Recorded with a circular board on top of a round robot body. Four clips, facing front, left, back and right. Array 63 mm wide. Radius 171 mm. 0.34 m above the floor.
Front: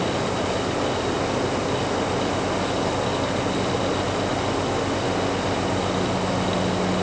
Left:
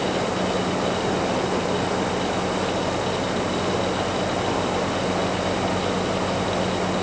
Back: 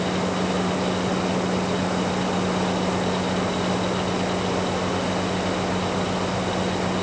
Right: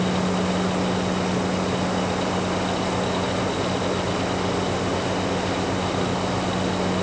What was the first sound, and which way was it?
Only background noise.